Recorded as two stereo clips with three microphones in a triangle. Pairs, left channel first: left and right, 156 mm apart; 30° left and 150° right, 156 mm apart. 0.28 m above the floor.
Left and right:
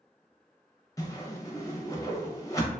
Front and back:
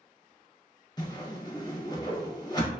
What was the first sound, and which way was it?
A whoosh, 50° left.